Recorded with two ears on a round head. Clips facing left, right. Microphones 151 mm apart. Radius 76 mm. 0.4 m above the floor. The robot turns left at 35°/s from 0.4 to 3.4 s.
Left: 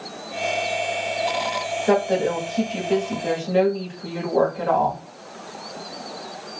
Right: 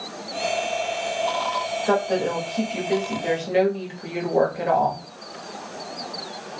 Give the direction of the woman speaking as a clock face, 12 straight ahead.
11 o'clock.